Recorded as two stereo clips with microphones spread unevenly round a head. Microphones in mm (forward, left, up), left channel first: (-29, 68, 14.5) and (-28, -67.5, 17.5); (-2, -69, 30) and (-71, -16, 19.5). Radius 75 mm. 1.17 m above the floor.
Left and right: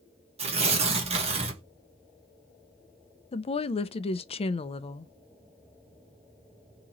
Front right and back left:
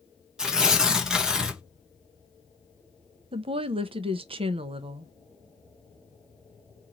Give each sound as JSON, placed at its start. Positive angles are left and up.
{"t": 0.4, "sound": "tearing paper", "azimuth_deg": -135, "distance_m": 1.4}
{"t": 3.3, "sound": "a woman speaking", "azimuth_deg": 140, "distance_m": 0.6}